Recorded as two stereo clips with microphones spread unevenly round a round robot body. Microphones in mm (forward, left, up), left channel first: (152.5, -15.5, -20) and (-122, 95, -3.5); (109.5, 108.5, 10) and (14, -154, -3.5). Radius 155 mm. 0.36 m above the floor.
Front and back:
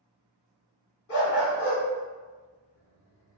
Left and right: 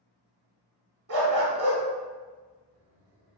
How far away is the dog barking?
About 1.0 m.